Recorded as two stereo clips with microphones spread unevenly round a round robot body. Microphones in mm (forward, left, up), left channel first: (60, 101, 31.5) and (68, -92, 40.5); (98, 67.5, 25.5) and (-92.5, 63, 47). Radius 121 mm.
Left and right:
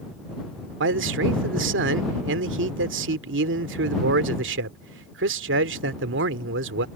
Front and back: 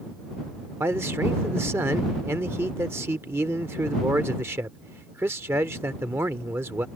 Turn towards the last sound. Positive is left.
turn(degrees=-95)